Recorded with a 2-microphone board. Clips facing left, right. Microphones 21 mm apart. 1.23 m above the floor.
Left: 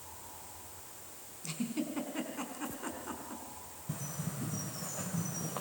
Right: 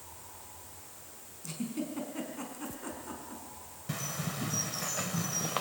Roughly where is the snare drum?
I don't hear a snare drum.